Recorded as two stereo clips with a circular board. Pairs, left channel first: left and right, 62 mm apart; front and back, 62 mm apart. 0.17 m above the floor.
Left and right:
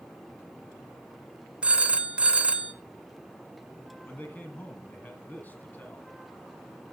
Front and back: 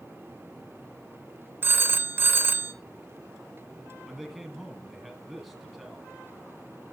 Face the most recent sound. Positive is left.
turn(degrees=95)